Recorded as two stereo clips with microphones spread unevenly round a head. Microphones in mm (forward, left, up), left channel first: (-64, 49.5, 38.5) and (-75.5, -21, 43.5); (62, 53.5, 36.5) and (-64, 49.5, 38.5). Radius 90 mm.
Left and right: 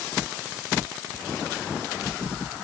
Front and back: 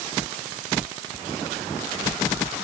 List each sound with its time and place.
Only background noise.